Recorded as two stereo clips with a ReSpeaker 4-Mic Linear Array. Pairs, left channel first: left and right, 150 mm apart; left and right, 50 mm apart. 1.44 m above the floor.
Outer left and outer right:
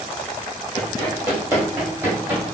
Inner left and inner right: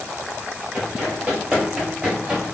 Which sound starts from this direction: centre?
Running footsteps, at 0.7 s.